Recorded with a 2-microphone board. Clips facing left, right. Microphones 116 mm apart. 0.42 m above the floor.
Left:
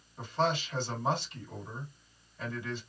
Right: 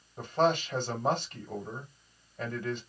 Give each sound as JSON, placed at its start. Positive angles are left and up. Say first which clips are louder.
{"t": 0.2, "sound": "a man speaking", "louder": "right 4 dB", "side_deg": -55, "distance_m": 1.7}